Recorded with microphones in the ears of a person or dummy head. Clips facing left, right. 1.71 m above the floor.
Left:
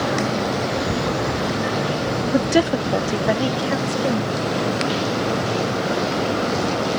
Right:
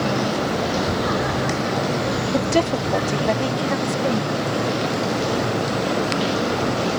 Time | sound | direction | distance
2.3 | a woman speaking | 20° left (ahead or behind) | ?